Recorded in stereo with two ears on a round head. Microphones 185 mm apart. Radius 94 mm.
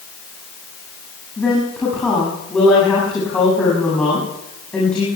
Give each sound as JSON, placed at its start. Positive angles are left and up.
{"t": 1.4, "sound": "a woman speaking", "side_deg": 5, "distance_m": 7.5}